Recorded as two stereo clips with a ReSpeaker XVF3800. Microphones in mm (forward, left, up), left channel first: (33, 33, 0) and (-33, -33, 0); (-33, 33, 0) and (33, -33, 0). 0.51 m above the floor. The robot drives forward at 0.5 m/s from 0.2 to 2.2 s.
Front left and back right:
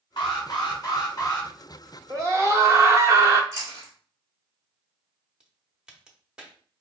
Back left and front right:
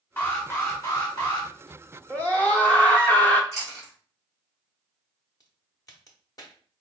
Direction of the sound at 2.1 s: 155° right.